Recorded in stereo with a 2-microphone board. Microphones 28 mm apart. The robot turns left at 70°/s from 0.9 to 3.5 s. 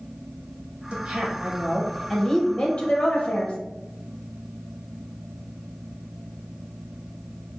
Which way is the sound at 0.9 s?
100° right.